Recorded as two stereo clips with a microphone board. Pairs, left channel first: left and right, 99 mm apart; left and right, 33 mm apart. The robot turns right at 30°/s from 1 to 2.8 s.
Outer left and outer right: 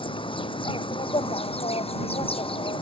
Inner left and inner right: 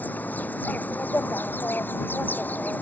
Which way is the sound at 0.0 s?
65° left.